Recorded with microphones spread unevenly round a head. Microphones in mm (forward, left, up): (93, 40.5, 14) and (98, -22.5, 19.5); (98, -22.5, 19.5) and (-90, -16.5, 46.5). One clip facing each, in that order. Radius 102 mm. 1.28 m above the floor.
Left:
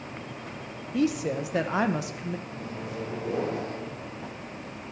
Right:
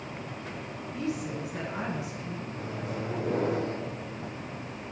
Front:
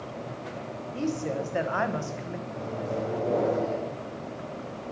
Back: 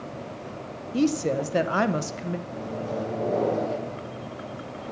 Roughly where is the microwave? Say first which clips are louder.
Right 1 dB, back 1 dB; right.